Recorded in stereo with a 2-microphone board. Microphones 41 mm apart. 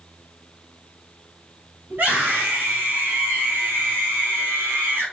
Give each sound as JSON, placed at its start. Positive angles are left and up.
{"t": 1.9, "sound": "a scream", "side_deg": -55, "distance_m": 5.5}